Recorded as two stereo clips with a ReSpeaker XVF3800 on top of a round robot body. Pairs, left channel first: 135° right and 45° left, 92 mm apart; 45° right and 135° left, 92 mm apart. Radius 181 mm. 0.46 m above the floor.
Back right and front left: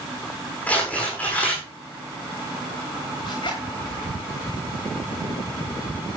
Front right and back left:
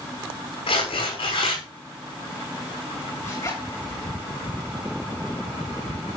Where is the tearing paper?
60° right, 8.5 m.